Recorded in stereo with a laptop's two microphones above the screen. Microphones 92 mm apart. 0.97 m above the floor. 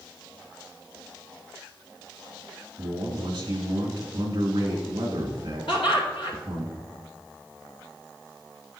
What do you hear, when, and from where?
2.8 s a man speaking: 55° right (ahead or behind), 2.5 m
5.7 s laughter: 75° left (ahead or behind), 2.5 m